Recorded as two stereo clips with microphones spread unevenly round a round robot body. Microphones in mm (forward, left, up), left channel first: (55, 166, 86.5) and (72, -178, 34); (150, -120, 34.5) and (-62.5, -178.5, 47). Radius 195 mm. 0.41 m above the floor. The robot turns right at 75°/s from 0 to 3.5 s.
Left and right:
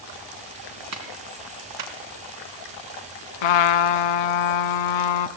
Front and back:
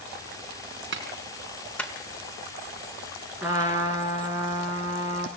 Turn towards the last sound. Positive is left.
turn(degrees=115)